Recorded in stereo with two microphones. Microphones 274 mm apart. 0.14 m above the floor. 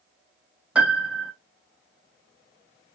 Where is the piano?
5° right (ahead or behind), 0.8 m.